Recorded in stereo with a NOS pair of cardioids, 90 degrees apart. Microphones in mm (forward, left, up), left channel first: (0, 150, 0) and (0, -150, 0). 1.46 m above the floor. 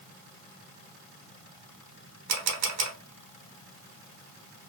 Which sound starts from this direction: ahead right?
A camera shutter, at 2.3 s.